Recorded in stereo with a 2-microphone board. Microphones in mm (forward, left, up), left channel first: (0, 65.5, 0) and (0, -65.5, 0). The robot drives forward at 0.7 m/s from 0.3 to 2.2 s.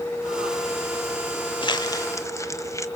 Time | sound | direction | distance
1.6 | crumpling | 35° left (ahead or behind) | 0.6 m